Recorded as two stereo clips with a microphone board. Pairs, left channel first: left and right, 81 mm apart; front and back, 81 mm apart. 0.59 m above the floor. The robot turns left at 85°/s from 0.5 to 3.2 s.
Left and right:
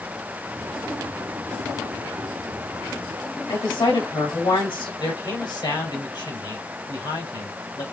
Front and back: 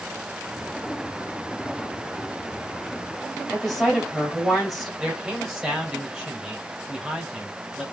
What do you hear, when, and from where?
3.5 s a woman speaking: 90° left, 3 m
5.0 s a man speaking: 90° left, 2.5 m